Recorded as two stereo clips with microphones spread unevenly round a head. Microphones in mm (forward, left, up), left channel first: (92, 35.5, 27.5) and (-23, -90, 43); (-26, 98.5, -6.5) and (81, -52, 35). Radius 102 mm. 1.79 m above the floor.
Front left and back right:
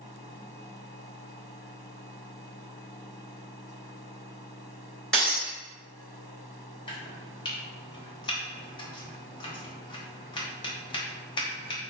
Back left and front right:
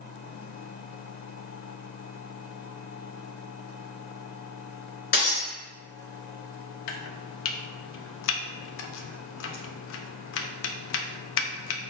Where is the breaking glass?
140° left, 2.0 m.